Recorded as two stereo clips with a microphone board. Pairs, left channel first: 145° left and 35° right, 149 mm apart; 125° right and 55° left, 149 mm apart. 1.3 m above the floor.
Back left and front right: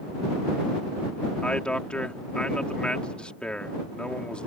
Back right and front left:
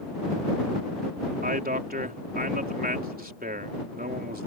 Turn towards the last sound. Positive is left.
turn(degrees=65)